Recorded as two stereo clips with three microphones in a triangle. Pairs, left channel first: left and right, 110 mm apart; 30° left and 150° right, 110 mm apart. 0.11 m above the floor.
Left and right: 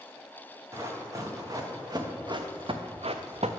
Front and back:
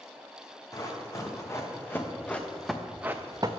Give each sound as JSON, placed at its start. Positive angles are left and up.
{"t": 0.7, "sound": "running footsteps", "azimuth_deg": -30, "distance_m": 1.8}